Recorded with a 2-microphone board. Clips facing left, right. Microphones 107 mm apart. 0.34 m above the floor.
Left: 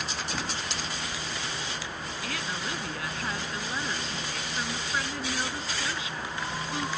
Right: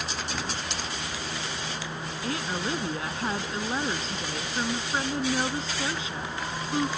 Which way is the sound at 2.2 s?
30° right (ahead or behind).